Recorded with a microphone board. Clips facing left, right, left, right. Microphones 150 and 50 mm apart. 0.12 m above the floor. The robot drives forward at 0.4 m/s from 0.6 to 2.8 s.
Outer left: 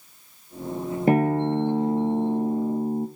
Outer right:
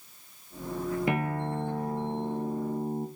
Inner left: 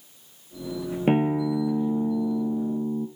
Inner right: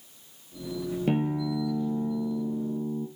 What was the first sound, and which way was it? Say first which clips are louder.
A guitar: outer left 10 dB, inner left 6 dB; 40° left (ahead or behind).